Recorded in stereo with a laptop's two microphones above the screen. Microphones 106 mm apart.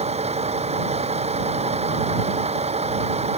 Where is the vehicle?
85° right.